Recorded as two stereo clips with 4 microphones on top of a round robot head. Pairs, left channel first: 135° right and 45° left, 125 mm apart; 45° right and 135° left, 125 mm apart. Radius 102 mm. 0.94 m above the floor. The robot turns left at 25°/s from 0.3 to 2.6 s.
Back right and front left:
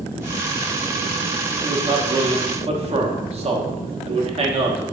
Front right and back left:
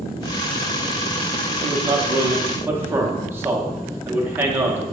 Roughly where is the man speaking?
Left.